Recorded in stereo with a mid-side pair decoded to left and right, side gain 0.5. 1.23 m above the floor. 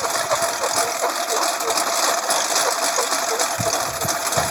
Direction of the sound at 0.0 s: 5° right.